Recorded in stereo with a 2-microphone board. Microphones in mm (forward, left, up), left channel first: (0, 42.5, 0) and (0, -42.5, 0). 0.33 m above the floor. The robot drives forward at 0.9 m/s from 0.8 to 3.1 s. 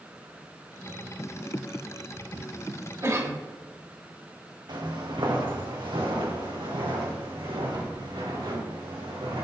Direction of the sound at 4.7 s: 60° right (ahead or behind).